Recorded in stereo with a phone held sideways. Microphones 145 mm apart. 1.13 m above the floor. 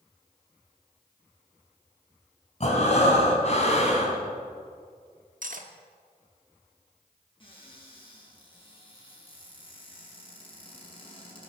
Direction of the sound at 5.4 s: 65° right (ahead or behind).